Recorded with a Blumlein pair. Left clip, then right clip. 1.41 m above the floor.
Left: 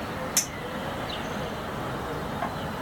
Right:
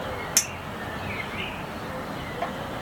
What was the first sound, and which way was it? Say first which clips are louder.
A clink: right 3 dB; 20° right.